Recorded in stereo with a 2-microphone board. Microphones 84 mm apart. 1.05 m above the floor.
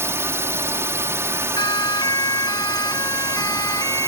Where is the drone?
35° right (ahead or behind).